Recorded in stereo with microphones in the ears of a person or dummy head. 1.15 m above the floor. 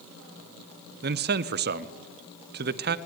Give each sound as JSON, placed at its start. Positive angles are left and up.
{"t": 1.0, "sound": "a man speaking", "side_deg": -45, "distance_m": 0.5}